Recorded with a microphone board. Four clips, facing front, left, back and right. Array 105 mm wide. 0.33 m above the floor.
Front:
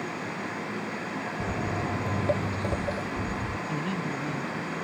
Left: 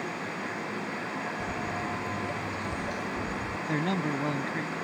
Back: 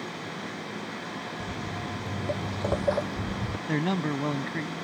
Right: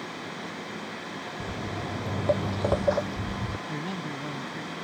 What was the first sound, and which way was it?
Footsteps, 15° right.